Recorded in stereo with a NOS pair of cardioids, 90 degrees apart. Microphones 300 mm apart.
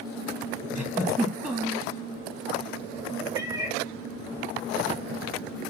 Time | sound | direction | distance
0.8 | a giggle | 10° right | 1.3 m
3.4 | a cat meowing | 15° right | 0.8 m